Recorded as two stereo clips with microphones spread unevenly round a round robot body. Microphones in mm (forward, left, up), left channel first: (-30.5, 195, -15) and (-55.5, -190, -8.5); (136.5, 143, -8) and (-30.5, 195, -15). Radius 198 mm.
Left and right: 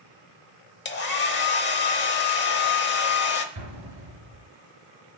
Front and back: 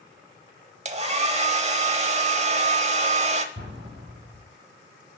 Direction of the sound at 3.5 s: 140° right.